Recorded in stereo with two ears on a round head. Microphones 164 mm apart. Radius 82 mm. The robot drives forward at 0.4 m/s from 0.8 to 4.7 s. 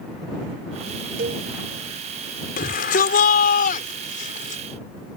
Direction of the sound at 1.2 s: 50° right (ahead or behind).